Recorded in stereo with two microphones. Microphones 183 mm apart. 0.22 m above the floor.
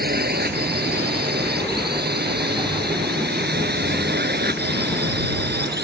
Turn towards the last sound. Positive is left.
turn(degrees=-65)  # may be behind; listen again after turning